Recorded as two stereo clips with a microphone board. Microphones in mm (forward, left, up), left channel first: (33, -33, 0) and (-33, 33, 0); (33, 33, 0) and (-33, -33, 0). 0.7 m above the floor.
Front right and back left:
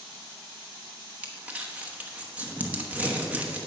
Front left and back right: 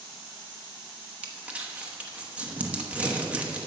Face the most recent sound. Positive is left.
turn(degrees=180)